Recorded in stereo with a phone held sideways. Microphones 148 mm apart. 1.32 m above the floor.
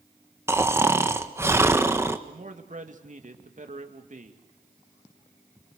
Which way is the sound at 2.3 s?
55° right (ahead or behind).